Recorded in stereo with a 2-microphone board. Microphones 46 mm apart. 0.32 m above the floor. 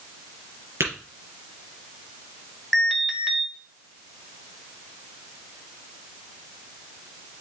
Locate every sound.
0.8 s tapping: 75° right (ahead or behind), 4.5 m
2.7 s an alarm: 10° right (ahead or behind), 1.8 m